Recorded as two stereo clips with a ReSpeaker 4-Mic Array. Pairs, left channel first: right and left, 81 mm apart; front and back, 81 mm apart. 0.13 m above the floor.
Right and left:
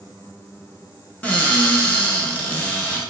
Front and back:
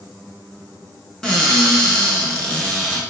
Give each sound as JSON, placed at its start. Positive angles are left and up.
{"t": 1.2, "sound": "a cupboard door", "azimuth_deg": -60, "distance_m": 0.6}